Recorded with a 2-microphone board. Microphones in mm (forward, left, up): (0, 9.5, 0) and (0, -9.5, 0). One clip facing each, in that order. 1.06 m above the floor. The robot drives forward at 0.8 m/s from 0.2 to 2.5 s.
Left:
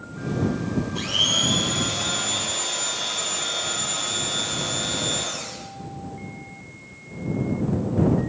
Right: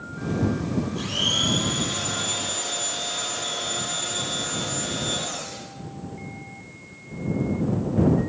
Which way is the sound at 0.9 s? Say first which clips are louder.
Left 3 dB; 45° left (ahead or behind).